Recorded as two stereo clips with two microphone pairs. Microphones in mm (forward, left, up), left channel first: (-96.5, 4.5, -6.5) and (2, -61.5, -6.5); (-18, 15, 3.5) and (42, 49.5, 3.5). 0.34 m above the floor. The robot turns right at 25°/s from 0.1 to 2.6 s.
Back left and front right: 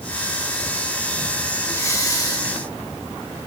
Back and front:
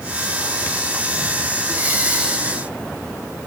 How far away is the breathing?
About 2.5 m.